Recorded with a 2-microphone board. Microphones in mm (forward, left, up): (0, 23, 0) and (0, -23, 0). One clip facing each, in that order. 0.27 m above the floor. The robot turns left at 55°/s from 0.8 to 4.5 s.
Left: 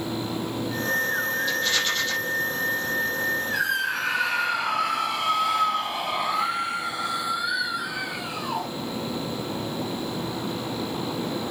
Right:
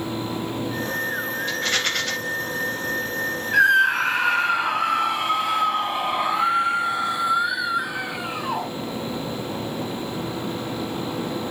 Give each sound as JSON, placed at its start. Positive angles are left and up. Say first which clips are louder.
{"t": 1.5, "sound": "a rattle", "louder": "right 1 dB", "azimuth_deg": -40, "distance_m": 4.0}
{"t": 3.5, "sound": "a scream", "louder": "right 9 dB", "azimuth_deg": -95, "distance_m": 2.0}